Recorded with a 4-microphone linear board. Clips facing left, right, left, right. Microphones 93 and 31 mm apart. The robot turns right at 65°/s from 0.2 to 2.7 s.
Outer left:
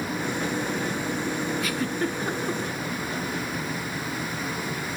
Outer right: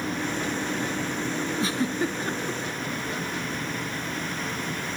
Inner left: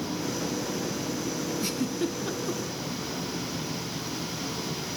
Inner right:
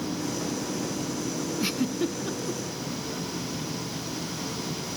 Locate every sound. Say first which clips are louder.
1.6 s a giggle: outer right 1 dB, inner right 3 dB; 30° right (ahead or behind), 1.4 m; by 2.6 s 25° left (ahead or behind), 1.4 m